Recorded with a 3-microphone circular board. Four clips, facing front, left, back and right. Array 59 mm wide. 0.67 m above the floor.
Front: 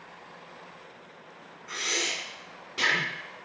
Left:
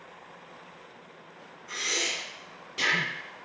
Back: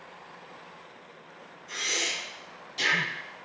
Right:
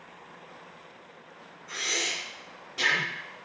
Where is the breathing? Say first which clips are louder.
Even, even; 5° left, 1.7 m.